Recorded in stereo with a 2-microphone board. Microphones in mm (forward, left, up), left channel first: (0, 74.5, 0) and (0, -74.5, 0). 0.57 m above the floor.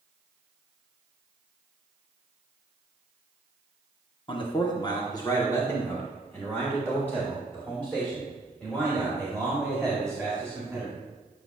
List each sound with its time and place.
4.3 s a man speaking: 35° left (ahead or behind), 0.9 m; by 10.9 s 5° left (ahead or behind), 3.5 m